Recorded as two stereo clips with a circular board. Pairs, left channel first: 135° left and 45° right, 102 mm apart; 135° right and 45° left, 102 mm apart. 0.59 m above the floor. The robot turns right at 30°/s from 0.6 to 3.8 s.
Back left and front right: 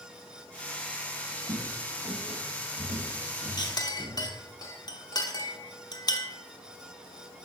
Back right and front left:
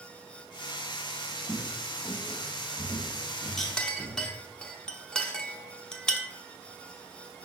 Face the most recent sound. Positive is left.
turn(degrees=150)